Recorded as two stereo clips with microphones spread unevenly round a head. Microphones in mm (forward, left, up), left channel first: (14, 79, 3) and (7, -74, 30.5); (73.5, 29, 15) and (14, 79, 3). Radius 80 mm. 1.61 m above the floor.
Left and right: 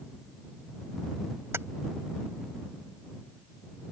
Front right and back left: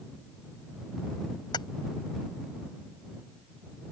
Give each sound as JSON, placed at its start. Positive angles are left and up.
{"t": 1.5, "sound": "keys jangling", "azimuth_deg": -20}